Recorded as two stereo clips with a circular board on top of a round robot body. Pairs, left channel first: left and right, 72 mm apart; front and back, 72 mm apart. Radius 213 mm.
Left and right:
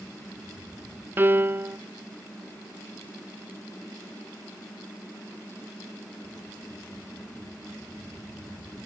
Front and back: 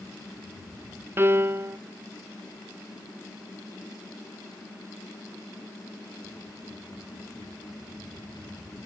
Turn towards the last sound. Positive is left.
turn(degrees=-135)